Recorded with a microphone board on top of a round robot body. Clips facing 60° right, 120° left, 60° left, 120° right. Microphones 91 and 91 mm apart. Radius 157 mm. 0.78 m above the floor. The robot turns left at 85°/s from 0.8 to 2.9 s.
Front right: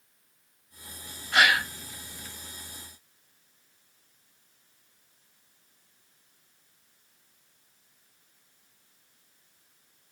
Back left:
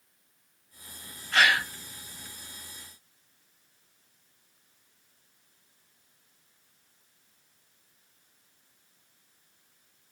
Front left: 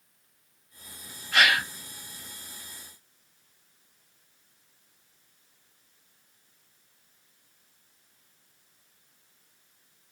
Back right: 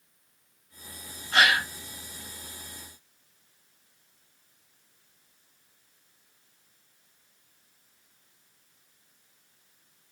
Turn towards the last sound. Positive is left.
turn(degrees=110)